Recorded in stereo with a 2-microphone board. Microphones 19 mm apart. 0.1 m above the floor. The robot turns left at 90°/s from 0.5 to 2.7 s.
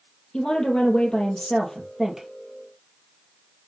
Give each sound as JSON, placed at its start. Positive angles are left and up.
{"t": 0.3, "sound": "a woman speaking", "azimuth_deg": 120, "distance_m": 2.5}